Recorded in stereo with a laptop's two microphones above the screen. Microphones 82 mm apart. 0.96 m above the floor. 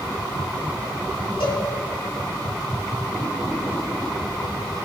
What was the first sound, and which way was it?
A cowbell, 85° left.